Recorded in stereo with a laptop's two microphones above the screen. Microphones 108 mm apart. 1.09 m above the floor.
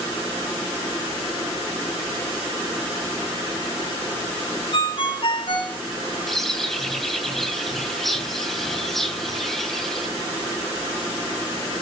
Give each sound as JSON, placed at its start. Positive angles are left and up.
{"t": 4.7, "sound": "a ringtone", "side_deg": 55, "distance_m": 2.5}
{"t": 6.3, "sound": "a bird", "side_deg": 5, "distance_m": 2.5}